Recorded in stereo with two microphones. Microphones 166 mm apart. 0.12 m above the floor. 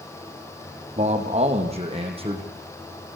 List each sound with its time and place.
1.0 s a man speaking: 45° right (ahead or behind), 5.5 m; by 2.4 s 35° right (ahead or behind), 5 m